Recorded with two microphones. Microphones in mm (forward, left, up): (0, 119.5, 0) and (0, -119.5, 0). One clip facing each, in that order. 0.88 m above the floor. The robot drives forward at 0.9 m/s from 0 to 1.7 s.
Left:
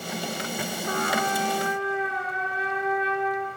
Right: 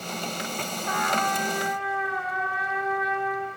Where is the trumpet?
35° left (ahead or behind), 3 m; by 3.5 s 30° left (ahead or behind), 3.5 m.